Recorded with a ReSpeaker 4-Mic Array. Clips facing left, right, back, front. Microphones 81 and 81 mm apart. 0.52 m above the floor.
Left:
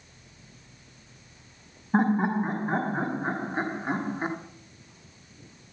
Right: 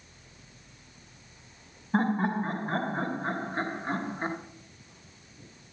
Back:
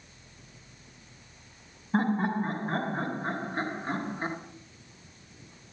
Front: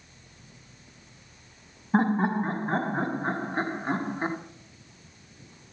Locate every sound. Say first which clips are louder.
1.9 s laughter: left 3 dB, front 3 dB; 30° left, 1.0 m